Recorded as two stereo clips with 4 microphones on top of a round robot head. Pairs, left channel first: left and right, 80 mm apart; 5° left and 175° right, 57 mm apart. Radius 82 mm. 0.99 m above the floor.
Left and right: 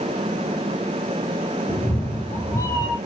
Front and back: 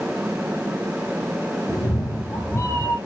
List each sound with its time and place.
1.7 s a cat meowing: 30° left, 2.5 m; by 3.0 s 40° left, 3.5 m